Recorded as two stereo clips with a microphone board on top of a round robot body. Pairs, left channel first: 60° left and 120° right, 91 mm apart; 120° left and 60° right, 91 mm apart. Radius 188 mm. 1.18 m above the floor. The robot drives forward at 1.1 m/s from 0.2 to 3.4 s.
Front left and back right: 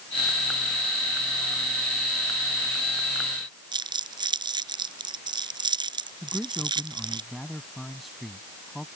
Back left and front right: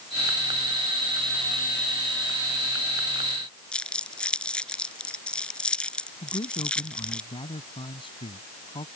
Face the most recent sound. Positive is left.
turn(degrees=150)